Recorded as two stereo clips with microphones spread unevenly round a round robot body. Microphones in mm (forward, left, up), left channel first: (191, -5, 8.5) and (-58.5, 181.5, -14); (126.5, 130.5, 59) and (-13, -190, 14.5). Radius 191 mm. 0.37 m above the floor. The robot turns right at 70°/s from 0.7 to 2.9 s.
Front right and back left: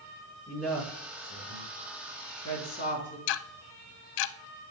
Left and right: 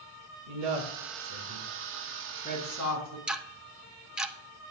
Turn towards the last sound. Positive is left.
turn(degrees=-25)